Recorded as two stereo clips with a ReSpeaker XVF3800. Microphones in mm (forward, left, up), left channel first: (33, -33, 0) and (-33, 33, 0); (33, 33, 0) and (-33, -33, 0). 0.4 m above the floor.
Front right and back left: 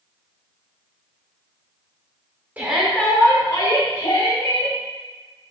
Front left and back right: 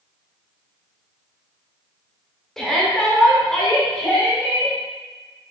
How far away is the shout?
About 0.8 m.